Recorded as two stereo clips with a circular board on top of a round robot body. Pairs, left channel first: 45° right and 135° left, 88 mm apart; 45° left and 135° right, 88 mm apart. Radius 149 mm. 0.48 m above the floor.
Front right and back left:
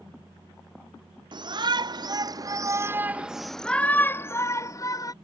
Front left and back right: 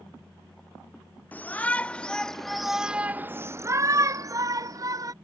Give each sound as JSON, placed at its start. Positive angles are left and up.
{"t": 1.3, "sound": "a shout", "azimuth_deg": 115}